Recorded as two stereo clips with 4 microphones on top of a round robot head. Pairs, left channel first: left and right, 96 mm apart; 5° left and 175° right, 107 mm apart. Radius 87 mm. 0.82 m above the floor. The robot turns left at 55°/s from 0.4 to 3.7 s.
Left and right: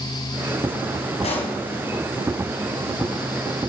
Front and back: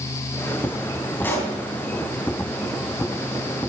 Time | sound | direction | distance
1.2 | a pop | 80° left | 3 m